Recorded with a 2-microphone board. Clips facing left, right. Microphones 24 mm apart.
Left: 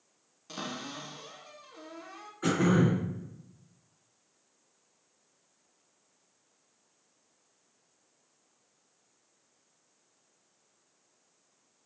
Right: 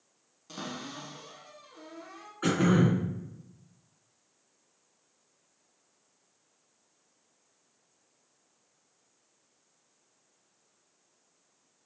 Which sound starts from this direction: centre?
A cupboard door, at 0.5 s.